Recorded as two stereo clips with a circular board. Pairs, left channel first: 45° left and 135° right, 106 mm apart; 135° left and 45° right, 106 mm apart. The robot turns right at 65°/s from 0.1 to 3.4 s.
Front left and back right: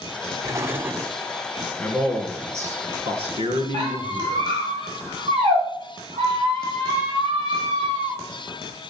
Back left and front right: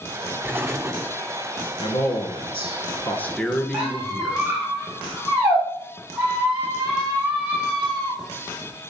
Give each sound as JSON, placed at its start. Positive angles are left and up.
{"t": 0.4, "sound": "an explosion", "azimuth_deg": -105, "distance_m": 1.4}
{"t": 1.8, "sound": "a man speaking", "azimuth_deg": 115, "distance_m": 2.5}
{"t": 3.7, "sound": "a squeak", "azimuth_deg": -120, "distance_m": 6.5}